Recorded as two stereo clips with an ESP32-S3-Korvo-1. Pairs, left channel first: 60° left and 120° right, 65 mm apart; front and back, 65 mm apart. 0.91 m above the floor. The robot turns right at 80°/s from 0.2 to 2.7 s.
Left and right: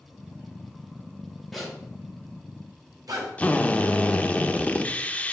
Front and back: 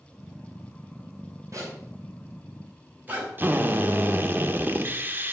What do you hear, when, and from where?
1.5 s a zipper: 150° left, 3.5 m; by 3.3 s 115° right, 3.5 m
3.4 s a drill: 125° left, 0.8 m